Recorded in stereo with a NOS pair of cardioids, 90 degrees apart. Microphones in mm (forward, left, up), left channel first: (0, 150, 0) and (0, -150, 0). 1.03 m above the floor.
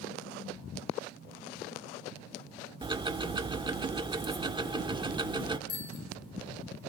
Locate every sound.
2.8 s ticking: 15° right, 1.3 m
5.7 s a bicycle bell: 35° left, 5.5 m